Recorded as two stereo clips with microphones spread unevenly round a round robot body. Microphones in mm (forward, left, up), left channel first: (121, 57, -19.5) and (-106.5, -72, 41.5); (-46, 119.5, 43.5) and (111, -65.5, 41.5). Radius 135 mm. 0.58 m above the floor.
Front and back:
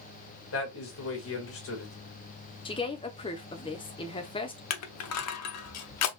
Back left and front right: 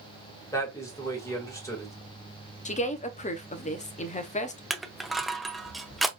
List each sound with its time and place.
0.5 s a man speaking: 55° left, 2 m
2.6 s a woman speaking: 80° left, 0.8 m
4.7 s crushing: 40° left, 0.7 m